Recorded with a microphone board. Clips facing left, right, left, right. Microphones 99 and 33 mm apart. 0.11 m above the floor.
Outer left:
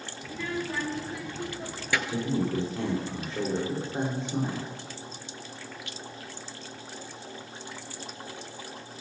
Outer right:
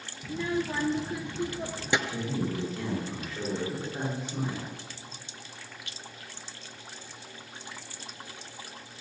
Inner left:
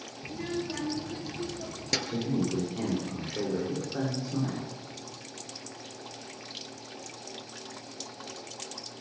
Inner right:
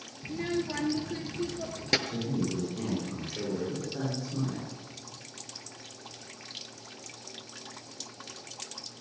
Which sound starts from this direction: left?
A man speaking, at 2.1 s.